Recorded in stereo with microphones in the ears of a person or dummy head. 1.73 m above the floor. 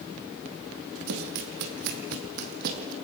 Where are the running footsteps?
55° right (ahead or behind), 3 m; by 2.9 s 50° right (ahead or behind), 4 m.